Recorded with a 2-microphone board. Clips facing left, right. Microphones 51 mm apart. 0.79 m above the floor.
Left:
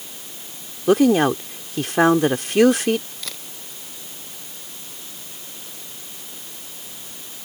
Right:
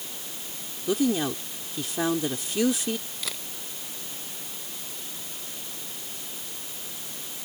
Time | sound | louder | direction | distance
0.9 | a woman speaking | left 10 dB | 65° left (ahead or behind) | ?
3.2 | a camera shutter | even | 5° right (ahead or behind) | ?